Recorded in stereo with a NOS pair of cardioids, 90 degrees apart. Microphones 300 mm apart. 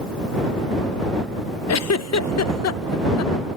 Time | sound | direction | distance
1.7 | a giggle | 60° left | ?